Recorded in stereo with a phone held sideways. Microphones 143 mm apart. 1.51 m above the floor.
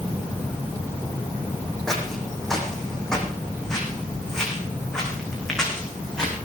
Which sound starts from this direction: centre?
Footsteps, at 1.9 s.